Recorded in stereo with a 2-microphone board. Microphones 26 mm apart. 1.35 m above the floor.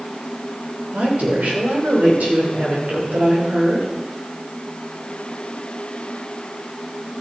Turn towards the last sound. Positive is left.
turn(degrees=-70)  # may be behind; listen again after turning